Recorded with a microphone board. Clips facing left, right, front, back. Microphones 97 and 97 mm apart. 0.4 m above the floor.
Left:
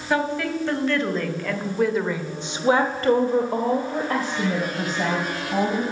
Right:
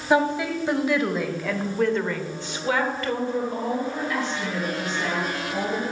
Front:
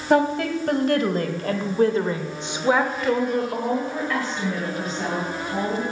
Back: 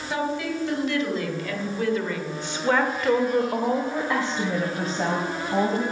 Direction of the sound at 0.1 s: 20° right.